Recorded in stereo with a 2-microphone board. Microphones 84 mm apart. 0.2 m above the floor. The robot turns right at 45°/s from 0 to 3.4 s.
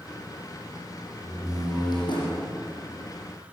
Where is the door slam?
30° left, 7.5 m; by 2.5 s 85° left, 7.5 m.